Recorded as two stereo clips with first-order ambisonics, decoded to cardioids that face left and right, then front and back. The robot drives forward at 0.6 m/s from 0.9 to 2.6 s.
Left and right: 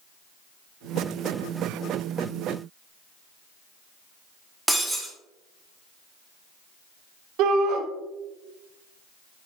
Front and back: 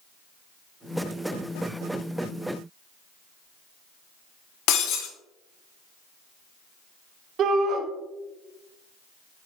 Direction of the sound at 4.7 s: 5° right.